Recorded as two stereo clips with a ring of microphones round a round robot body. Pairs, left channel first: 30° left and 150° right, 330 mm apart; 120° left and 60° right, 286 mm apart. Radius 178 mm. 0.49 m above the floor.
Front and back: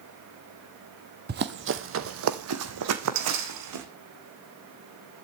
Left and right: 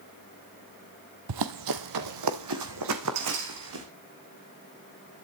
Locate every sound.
1.3 s running footsteps: 90° right, 1.1 m; by 3.9 s 110° right, 2 m